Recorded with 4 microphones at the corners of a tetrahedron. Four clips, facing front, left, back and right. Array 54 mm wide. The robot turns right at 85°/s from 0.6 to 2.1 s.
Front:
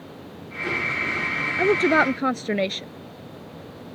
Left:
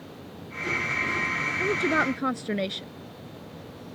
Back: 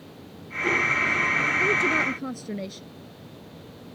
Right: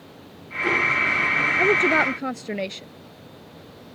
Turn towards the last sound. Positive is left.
turn(degrees=-5)